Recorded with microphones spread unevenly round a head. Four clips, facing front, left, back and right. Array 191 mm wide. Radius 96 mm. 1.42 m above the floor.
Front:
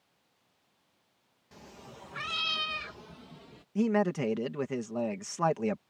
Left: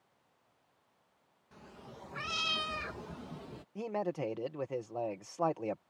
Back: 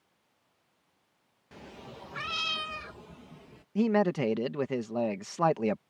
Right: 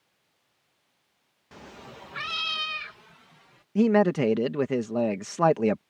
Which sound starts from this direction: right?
A man speaking, at 3.8 s.